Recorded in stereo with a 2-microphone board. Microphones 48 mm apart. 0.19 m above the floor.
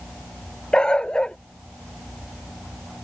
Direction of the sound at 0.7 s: 20° left (ahead or behind).